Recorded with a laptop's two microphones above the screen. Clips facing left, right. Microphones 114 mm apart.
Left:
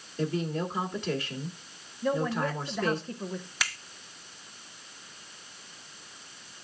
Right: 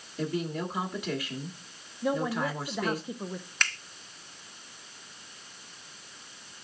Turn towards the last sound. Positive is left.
turn(degrees=5)  # may be behind; listen again after turning